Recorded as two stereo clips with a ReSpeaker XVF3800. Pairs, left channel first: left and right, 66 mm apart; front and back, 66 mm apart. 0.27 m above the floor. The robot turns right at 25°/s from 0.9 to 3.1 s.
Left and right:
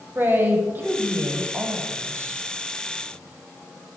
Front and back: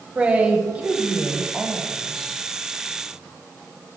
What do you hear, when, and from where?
0.1 s a man speaking: 120° right, 1.4 m; by 2.4 s 85° right, 1.4 m